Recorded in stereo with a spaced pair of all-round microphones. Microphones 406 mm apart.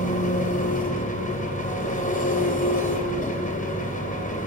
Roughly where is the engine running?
Centre.